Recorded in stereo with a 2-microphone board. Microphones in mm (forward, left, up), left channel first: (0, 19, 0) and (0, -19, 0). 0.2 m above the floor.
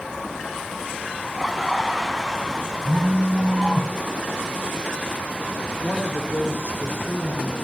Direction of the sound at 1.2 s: 5° right (ahead or behind).